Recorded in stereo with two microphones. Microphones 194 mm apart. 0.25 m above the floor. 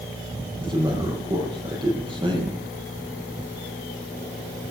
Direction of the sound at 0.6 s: 25° right (ahead or behind).